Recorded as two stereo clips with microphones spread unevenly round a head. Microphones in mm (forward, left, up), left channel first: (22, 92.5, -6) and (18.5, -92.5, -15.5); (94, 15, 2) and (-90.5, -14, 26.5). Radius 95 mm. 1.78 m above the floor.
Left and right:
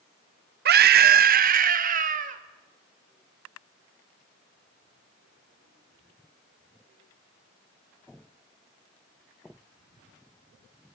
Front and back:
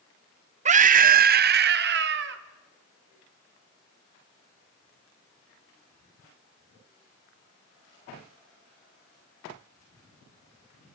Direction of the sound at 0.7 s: 125° right.